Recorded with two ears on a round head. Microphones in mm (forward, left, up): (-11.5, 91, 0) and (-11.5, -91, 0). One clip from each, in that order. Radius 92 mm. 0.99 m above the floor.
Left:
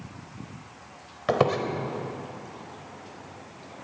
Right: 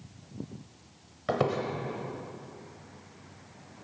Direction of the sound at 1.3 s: 20° left (ahead or behind).